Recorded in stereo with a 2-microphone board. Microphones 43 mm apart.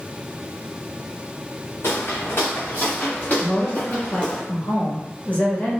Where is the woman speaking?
35° left (ahead or behind), 1.4 m.